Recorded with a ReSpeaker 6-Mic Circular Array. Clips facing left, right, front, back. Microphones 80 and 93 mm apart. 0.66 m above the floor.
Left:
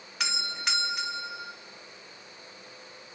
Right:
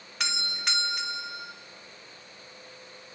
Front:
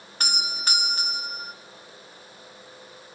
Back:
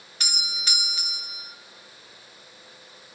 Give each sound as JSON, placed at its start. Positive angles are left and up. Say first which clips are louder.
{"t": 0.2, "sound": "a doorbell", "louder": "even, front 6 dB", "azimuth_deg": 0, "distance_m": 1.6}